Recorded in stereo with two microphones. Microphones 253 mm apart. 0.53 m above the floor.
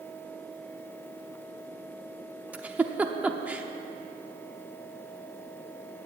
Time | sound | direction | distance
2.5 | a giggle | 5° right (ahead or behind) | 0.7 m